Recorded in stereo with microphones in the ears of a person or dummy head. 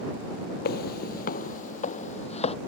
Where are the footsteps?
55° left (ahead or behind); by 2.5 s 40° left (ahead or behind).